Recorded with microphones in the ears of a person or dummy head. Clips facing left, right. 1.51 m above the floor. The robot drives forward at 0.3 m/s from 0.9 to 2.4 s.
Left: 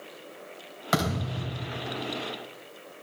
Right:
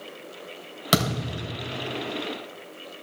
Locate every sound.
0.9 s a thud: 45° right (ahead or behind), 3 m